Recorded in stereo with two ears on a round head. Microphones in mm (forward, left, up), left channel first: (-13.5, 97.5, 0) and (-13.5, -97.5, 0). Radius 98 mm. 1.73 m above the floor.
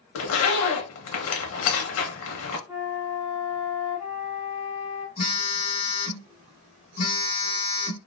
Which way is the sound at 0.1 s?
75° left (ahead or behind).